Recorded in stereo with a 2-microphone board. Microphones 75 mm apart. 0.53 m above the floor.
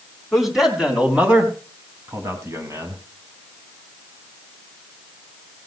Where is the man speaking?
5° right (ahead or behind), 3.5 m; by 3.0 s 45° right (ahead or behind), 3.5 m.